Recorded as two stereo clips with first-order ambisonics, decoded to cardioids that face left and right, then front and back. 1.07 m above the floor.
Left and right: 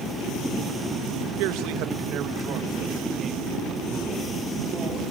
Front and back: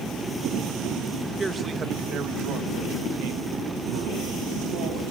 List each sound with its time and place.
1.4 s a man speaking: 100° right, 1.2 m; by 5.1 s 170° right, 3 m